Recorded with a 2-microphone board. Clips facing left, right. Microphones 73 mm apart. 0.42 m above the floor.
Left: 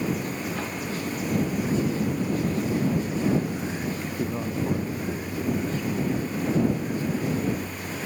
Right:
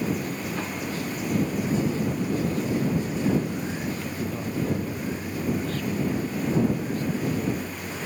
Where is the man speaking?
25° left (ahead or behind); by 7.0 s 20° left (ahead or behind).